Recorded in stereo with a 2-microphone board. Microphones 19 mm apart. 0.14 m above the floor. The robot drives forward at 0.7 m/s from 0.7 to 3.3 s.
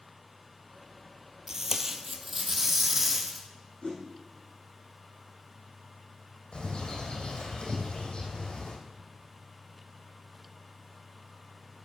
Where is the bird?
75° left (ahead or behind), 3.5 m.